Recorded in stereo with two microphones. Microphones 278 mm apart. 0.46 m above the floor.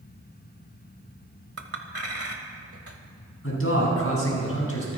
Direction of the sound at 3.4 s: 55° left (ahead or behind).